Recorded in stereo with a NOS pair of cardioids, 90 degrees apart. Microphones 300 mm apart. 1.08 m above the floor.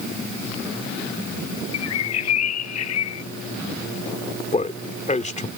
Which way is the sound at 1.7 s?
60° left.